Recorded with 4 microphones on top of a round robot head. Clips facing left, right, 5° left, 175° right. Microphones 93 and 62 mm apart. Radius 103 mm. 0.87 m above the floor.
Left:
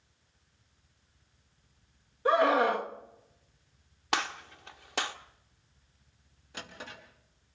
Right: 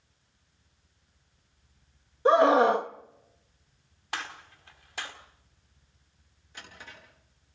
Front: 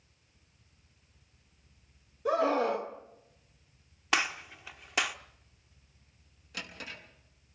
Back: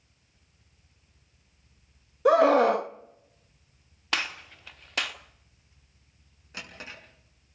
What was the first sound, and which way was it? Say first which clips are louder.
A scream: right 5 dB, back 9 dB; 155° right.